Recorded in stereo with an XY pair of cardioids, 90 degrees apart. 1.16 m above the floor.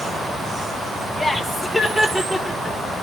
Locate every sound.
1.2 s laughter: straight ahead, 4.5 m